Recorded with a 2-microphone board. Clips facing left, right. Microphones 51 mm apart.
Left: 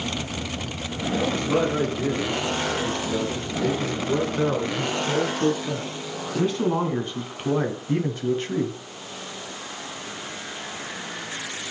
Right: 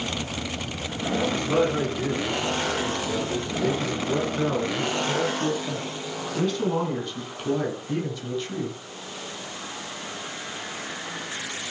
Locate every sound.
1.2 s a man speaking: centre (ahead or behind), 5.5 m; by 8.8 s 40° left (ahead or behind), 2.5 m